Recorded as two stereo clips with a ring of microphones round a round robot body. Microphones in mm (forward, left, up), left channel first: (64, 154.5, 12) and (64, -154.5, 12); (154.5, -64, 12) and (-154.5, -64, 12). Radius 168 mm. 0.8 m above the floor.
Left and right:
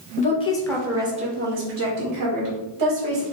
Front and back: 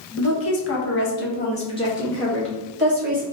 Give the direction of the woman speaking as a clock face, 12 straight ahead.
11 o'clock.